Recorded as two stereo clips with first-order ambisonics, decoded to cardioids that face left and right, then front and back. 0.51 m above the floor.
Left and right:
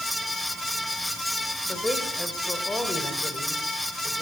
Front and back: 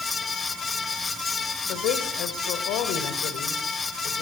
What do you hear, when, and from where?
1.7 s a man speaking: 10° left, 2.5 m